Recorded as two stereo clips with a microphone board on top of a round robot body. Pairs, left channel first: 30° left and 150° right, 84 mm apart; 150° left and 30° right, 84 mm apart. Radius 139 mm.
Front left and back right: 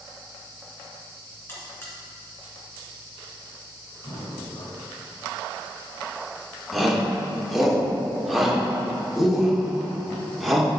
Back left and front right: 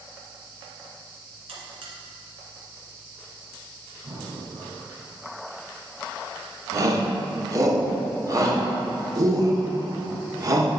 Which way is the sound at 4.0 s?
5° left.